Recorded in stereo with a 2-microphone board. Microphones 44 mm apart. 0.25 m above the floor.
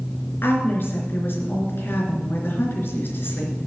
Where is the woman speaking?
60° left (ahead or behind), 3.5 m.